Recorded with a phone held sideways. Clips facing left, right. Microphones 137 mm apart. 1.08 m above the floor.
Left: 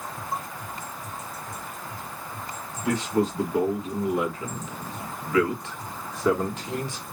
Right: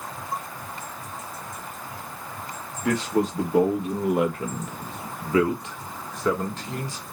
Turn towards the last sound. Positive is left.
turn(degrees=25)  # may be behind; listen again after turning